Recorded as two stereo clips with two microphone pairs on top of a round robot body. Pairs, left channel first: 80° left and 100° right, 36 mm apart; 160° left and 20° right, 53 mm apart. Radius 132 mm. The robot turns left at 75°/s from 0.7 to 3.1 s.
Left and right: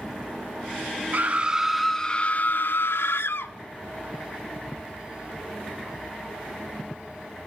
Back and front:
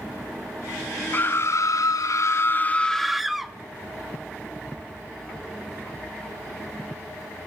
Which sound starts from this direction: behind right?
A scream, at 1.1 s.